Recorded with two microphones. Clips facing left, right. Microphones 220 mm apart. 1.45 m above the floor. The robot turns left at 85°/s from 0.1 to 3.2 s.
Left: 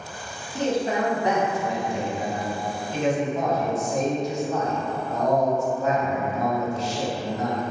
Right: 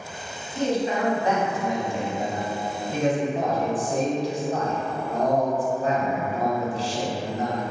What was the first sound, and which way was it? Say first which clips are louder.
A man speaking: even; 85° left.